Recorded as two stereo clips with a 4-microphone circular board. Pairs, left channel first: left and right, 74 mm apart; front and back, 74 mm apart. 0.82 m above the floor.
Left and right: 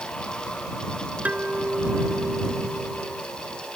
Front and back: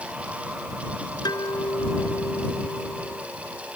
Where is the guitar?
20° right.